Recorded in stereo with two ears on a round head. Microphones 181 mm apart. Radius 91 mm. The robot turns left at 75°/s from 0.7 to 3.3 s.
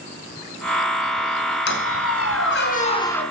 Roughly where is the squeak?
Behind left.